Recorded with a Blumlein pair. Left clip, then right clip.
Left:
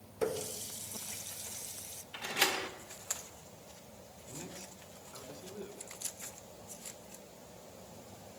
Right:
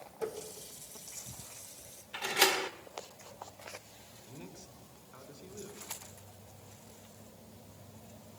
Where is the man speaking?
10° left, 5 m.